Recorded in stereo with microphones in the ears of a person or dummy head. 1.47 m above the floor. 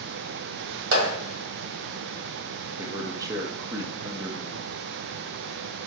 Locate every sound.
0.9 s a clap: 85° right, 1.5 m
2.8 s a man speaking: 20° right (ahead or behind), 0.6 m